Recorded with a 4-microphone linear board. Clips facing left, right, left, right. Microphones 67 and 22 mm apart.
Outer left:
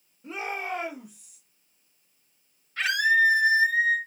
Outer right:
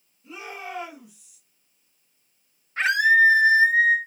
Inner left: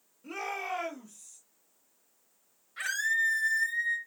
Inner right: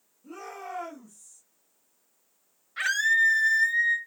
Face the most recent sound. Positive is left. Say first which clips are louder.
# outer right 4 dB, inner right 6 dB
turn(degrees=-30)  # may be behind; listen again after turning